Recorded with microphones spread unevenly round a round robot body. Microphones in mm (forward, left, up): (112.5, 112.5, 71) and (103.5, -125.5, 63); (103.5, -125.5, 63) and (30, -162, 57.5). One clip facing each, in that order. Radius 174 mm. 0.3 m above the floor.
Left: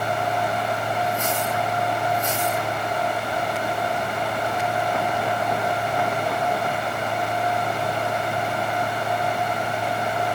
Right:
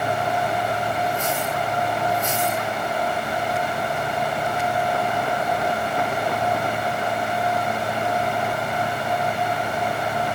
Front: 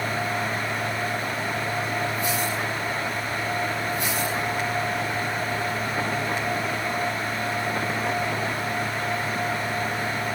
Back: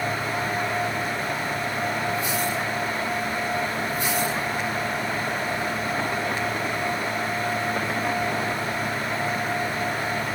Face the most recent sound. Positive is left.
No sound to turn to.